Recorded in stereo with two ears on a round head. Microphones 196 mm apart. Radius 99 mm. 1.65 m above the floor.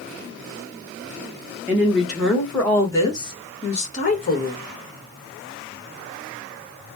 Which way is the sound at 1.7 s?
10° right (ahead or behind).